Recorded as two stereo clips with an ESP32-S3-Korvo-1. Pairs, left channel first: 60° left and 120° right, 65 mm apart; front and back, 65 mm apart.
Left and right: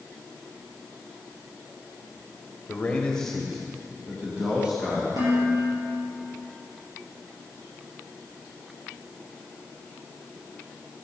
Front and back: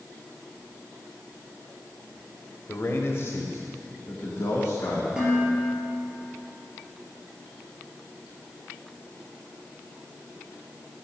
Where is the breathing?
No breathing in this recording.